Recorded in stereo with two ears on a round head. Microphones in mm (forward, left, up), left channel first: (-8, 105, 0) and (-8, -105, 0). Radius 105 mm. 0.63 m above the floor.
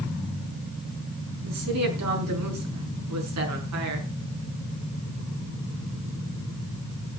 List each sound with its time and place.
1.4 s a woman speaking: 70° right (ahead or behind), 6.5 m